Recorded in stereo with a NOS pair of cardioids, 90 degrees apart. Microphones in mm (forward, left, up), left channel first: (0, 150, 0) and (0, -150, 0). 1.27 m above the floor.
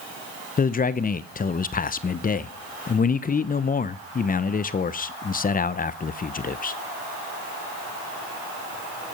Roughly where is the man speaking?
Ahead left.